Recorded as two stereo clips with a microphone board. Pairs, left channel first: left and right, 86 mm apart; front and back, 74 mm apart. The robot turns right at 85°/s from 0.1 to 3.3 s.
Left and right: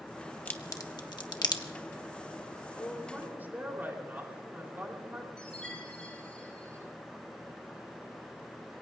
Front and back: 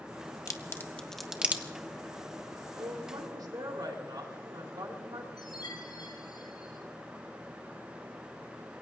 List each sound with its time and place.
0.5 s a crack: 25° left, 1.2 m; by 1.6 s 120° left, 1.2 m
2.8 s a woman speaking: 155° left, 3.5 m; by 5.3 s 155° right, 3.5 m
5.4 s a chime: 10° left, 9 m